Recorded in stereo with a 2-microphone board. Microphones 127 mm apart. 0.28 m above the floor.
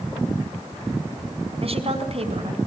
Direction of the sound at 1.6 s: 50° right (ahead or behind).